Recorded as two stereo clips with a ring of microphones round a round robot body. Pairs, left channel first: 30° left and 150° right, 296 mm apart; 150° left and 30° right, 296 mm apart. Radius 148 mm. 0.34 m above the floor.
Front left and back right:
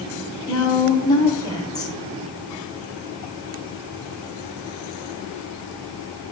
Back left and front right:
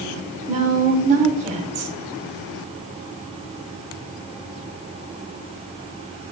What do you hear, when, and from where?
0.5 s a woman speaking: 30° right, 0.9 m